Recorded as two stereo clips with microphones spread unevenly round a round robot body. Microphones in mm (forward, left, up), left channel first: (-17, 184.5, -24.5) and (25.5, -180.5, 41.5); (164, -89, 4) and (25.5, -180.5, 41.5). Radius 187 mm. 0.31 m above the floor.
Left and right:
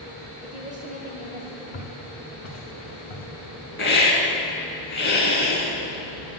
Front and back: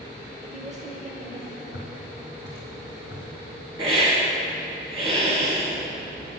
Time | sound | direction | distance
0.4 | a woman speaking | 155° right | 0.9 m
1.7 | footsteps | 65° left | 2.0 m
3.8 | a hiss | 155° left | 1.3 m